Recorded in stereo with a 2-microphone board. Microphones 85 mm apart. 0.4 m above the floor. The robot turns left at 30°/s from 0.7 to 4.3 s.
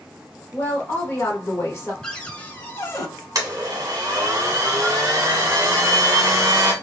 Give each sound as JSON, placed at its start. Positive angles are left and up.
{"t": 0.5, "sound": "a woman speaking", "azimuth_deg": 135, "distance_m": 1.0}
{"t": 2.0, "sound": "a cupboard door", "azimuth_deg": 170, "distance_m": 0.6}
{"t": 3.4, "sound": "a blender", "side_deg": -45, "distance_m": 1.1}